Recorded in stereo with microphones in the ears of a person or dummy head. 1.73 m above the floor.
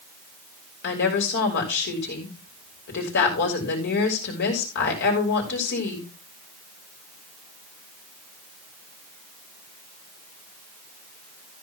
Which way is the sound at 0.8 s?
60° left (ahead or behind).